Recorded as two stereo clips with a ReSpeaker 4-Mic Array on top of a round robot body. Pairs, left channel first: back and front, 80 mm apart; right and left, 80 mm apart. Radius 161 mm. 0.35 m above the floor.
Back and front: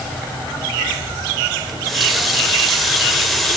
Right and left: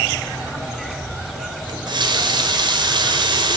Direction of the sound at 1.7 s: 90° left.